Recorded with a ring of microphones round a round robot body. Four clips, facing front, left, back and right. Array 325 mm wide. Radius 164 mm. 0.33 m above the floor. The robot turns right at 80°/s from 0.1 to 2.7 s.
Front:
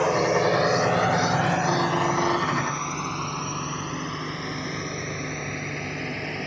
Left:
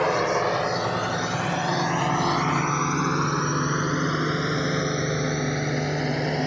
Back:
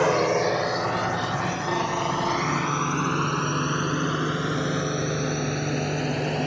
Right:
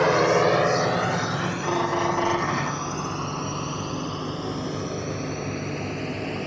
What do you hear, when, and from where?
0.0 s a drone: 125° right; by 6.5 s 130° left